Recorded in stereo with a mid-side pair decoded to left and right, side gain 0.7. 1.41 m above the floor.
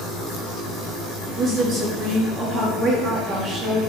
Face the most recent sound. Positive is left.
turn(degrees=-40)